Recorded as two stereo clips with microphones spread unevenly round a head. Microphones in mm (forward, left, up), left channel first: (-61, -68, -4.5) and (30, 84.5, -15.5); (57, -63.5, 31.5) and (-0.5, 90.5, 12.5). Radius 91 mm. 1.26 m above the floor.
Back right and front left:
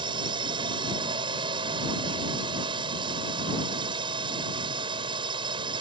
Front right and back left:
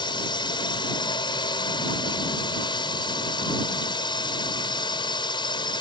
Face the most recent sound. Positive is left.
turn(degrees=-5)